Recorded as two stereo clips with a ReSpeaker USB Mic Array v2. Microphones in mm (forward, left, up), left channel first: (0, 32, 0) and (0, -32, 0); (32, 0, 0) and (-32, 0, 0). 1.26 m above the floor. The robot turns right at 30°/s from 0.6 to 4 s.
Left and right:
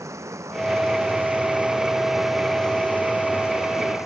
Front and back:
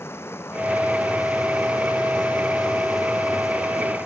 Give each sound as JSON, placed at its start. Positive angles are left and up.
{"t": 0.0, "sound": "running water", "azimuth_deg": -50}